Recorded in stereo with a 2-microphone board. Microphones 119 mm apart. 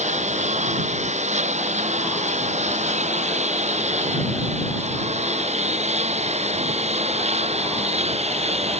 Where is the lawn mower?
80° right; by 8.8 s 65° right (ahead or behind).